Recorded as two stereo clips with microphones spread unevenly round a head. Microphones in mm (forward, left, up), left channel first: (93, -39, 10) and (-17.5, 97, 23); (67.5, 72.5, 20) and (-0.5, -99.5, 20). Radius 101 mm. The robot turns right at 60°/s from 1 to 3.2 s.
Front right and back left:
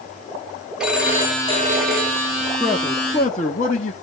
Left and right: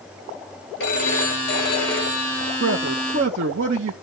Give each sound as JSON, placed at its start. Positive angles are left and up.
{"t": 0.8, "sound": "a phone ringing", "azimuth_deg": 45, "distance_m": 1.8}
{"t": 2.6, "sound": "a man speaking", "azimuth_deg": -145, "distance_m": 0.9}